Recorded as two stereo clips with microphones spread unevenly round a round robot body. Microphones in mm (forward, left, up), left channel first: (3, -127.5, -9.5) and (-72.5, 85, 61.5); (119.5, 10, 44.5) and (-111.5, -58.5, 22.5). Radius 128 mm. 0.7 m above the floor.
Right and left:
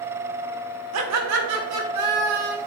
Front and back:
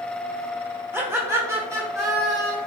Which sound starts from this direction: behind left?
Laughter, at 0.9 s.